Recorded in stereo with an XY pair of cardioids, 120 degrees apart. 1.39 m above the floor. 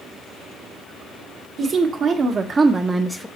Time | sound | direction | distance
1.6 | a woman speaking | 50° right | 1.5 m